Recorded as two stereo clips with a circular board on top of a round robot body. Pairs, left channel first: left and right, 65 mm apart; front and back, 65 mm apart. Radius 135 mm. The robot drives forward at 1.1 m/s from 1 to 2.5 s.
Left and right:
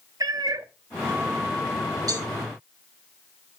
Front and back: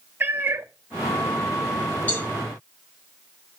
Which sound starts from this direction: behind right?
A cat meowing, at 0.2 s.